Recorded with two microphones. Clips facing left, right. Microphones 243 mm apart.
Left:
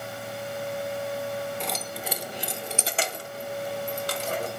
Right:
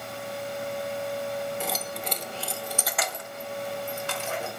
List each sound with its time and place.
1.6 s keys jangling: 5° right (ahead or behind), 0.8 m; by 4.5 s 40° left (ahead or behind), 1.2 m